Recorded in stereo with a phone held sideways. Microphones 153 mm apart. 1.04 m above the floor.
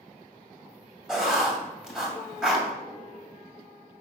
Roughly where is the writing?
Centre.